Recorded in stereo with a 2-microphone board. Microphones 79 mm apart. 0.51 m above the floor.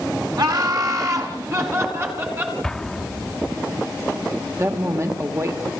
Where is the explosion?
5° left (ahead or behind), 1.0 m.